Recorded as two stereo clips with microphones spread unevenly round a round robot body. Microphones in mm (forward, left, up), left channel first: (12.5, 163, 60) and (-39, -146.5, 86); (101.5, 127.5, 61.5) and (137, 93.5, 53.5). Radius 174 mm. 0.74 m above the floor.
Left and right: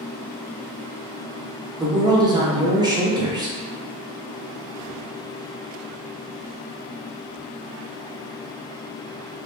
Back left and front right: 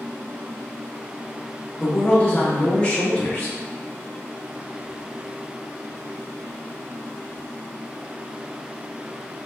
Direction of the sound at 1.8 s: 170° right.